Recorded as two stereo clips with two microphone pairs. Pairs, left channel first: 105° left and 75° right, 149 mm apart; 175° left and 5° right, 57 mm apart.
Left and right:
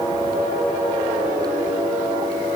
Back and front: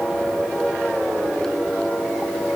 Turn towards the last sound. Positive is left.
No sound to turn to.